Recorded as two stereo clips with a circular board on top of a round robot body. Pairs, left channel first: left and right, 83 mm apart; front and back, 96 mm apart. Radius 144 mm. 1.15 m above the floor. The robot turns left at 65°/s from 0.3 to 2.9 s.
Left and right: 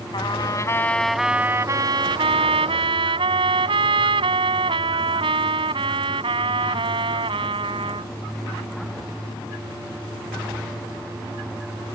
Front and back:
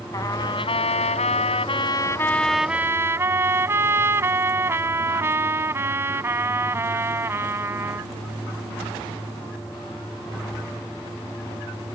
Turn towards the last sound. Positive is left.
turn(degrees=-115)